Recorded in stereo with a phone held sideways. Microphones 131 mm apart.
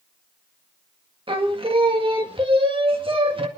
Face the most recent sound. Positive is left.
turn(degrees=-40)  # may be behind; listen again after turning